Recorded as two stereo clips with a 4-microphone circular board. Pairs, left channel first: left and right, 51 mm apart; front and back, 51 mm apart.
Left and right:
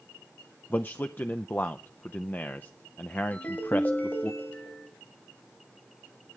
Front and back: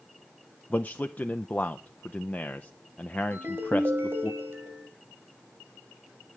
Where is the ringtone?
145° left, 2 m.